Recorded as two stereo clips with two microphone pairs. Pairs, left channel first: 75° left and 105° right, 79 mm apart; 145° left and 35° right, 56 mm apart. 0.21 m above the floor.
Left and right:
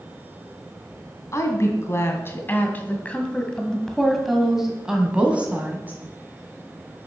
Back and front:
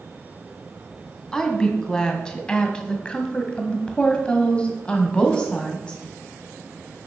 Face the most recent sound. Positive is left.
turn(degrees=-155)